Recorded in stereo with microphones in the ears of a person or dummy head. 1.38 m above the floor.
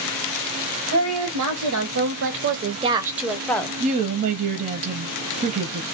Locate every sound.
0.9 s a woman speaking: 75° right (ahead or behind), 1.1 m; by 3.8 s 10° left (ahead or behind), 0.7 m
3.8 s a woman speaking: 45° right (ahead or behind), 0.5 m